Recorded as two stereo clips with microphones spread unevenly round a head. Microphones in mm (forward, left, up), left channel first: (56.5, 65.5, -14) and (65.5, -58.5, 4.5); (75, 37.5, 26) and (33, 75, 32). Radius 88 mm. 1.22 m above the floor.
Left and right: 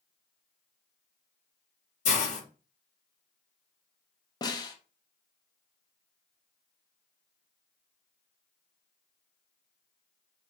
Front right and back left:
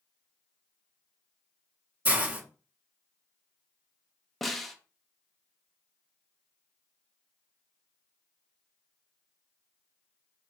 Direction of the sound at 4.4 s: 45° left.